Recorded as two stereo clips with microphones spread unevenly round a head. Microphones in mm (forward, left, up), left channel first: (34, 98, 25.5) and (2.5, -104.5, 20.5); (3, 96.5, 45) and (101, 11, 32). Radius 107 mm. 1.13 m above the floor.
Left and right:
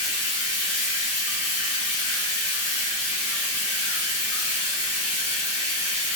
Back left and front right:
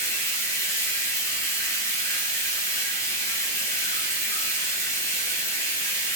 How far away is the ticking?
I don't hear ticking.